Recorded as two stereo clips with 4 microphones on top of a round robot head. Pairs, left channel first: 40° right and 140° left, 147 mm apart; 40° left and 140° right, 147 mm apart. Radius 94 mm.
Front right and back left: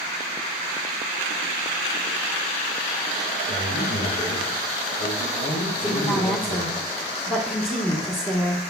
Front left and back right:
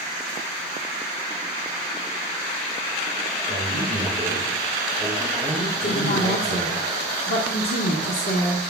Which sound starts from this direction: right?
A man speaking, at 3.5 s.